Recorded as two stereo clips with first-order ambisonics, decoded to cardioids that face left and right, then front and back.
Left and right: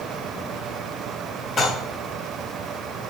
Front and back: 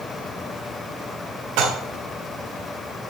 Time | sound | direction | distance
1.6 | dishes clattering | 160° left | 3 m